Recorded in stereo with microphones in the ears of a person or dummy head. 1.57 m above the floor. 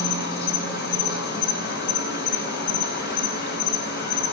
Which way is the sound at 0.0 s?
60° left (ahead or behind).